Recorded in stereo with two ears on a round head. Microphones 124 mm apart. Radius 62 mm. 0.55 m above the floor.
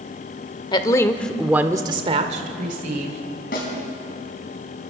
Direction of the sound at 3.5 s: 75° left (ahead or behind).